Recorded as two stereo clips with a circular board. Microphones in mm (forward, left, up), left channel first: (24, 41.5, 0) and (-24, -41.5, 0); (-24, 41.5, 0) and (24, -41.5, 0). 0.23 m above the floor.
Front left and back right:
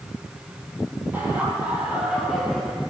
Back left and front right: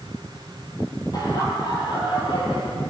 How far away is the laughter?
About 7 m.